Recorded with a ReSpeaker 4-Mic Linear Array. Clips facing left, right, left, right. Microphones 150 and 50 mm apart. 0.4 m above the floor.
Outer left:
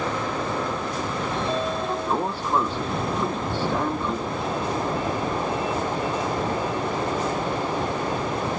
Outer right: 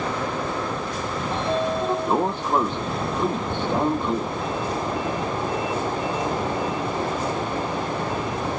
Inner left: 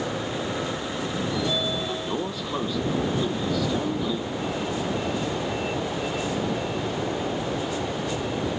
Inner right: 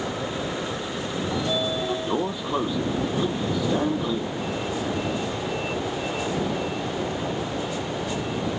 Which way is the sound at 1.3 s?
20° right (ahead or behind).